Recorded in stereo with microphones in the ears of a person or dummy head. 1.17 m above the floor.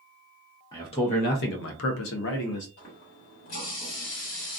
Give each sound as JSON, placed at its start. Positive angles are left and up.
{"t": 0.7, "sound": "a man speaking", "side_deg": 20, "distance_m": 0.9}
{"t": 2.8, "sound": "a running tap", "side_deg": 65, "distance_m": 1.5}